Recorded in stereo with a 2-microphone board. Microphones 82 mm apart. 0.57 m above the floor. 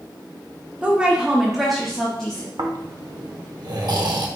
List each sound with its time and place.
0.8 s a woman speaking: 15° right (ahead or behind), 0.7 m; by 2.5 s 10° left (ahead or behind), 1.0 m
2.6 s snoring: 60° right (ahead or behind), 0.7 m